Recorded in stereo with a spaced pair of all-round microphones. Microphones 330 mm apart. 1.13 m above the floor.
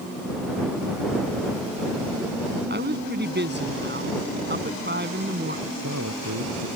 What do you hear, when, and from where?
2.7 s a woman speaking: 30° right (ahead or behind)
5.7 s a man speaking: 55° right (ahead or behind)